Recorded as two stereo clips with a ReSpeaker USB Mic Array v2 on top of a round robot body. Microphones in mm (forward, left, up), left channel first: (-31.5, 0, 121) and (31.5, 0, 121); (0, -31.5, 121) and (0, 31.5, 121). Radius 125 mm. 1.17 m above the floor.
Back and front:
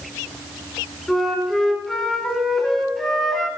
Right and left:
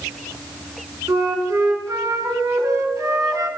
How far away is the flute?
About 1.5 m.